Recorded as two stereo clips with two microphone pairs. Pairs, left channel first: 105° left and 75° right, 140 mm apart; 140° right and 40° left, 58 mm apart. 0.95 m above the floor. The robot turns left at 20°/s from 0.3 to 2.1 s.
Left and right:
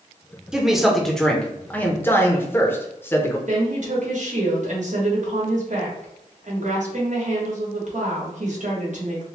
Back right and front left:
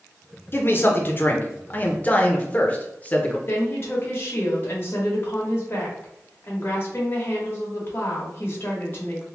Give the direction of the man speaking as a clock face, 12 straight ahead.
5 o'clock.